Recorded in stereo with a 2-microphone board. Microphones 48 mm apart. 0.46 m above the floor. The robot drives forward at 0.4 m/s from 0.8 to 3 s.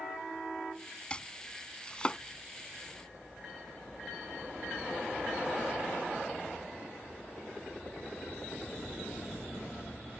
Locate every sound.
1.1 s chopping: 20° left (ahead or behind)